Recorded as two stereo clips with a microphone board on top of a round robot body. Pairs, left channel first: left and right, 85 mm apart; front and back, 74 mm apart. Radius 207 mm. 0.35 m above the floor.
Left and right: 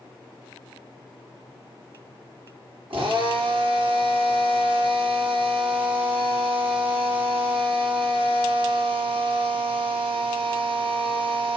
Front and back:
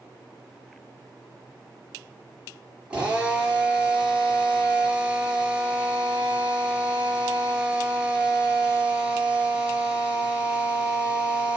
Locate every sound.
2.9 s a drill: 105° right, 5.5 m